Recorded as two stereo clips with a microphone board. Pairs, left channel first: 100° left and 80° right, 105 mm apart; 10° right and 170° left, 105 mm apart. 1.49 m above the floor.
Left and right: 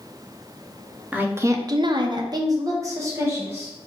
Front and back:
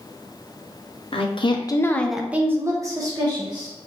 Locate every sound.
1.1 s a woman speaking: 5° right, 0.8 m; by 3.7 s 145° right, 1.6 m